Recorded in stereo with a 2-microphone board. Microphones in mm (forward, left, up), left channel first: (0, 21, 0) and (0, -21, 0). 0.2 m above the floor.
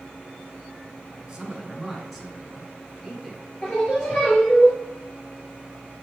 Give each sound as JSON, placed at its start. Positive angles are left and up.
{"t": 1.2, "sound": "a man speaking", "side_deg": -20, "distance_m": 1.7}
{"t": 3.6, "sound": "singing", "side_deg": 35, "distance_m": 4.0}